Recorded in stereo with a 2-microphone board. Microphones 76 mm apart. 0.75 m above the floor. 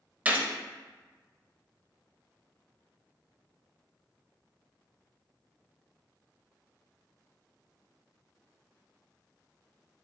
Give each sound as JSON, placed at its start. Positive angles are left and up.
{"t": 0.2, "sound": "a gunshot", "side_deg": -20, "distance_m": 0.5}